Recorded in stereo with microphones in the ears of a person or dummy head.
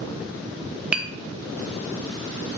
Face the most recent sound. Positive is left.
turn(degrees=-5)  # may be behind; listen again after turning